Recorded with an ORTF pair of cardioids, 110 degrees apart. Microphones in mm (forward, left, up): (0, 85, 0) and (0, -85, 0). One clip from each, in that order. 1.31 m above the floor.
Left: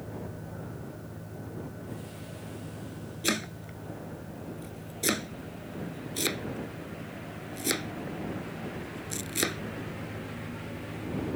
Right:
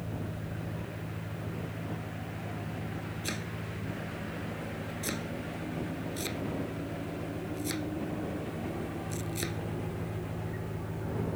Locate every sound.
0.0 s an engine running: 30° right
3.2 s chopping: 50° left